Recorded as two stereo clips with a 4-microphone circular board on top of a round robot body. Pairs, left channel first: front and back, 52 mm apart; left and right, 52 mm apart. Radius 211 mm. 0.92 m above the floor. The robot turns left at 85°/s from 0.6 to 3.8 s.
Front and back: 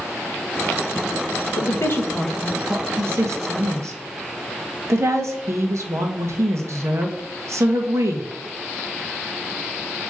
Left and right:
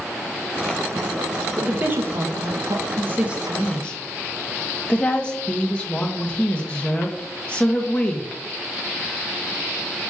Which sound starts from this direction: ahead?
A woman speaking, at 1.6 s.